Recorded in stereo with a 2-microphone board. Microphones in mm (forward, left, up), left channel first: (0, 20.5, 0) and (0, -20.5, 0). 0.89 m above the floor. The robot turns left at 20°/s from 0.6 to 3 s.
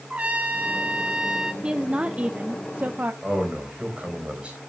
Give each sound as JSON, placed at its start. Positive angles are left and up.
{"t": 0.1, "sound": "a trumpet", "side_deg": -35, "distance_m": 1.2}
{"t": 1.6, "sound": "a woman speaking", "side_deg": -25, "distance_m": 0.6}
{"t": 3.2, "sound": "a man speaking", "side_deg": -30, "distance_m": 4.5}